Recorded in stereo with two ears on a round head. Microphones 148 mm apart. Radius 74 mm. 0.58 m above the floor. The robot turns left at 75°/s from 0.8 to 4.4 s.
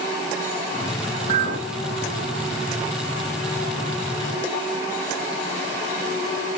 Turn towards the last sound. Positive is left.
turn(degrees=75)